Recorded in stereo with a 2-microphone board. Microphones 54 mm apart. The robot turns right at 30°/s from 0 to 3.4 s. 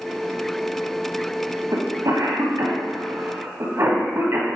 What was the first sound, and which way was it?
A cough, 70° right (ahead or behind).